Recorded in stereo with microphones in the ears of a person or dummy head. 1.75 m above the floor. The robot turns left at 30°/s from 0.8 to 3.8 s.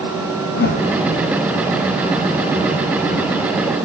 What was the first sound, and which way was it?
A whoosh, 50° left (ahead or behind).